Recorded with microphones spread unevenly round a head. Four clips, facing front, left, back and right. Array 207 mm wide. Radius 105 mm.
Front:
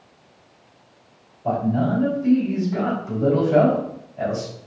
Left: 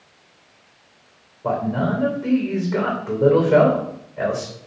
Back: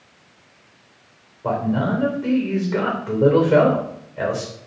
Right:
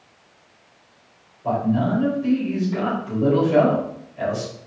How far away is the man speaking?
About 3.5 m.